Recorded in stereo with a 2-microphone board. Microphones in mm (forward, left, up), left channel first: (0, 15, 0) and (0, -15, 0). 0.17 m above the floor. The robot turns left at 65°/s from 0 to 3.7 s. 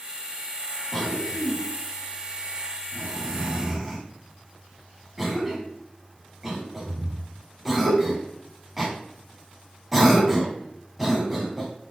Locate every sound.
0.9 s a cough: 10° left (ahead or behind), 1.0 m; by 11.7 s 10° right (ahead or behind), 1.0 m